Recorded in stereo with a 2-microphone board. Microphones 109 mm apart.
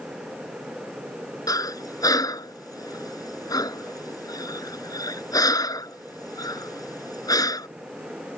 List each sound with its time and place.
1.5 s breathing: 35° left (ahead or behind)